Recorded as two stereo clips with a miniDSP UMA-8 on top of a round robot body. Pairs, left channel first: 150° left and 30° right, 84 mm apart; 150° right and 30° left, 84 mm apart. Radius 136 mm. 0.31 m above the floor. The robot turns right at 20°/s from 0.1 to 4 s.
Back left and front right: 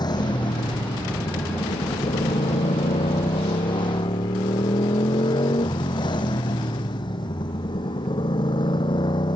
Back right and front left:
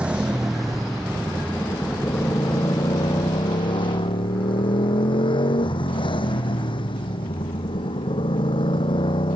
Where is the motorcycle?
110° left; by 9.4 s 175° right.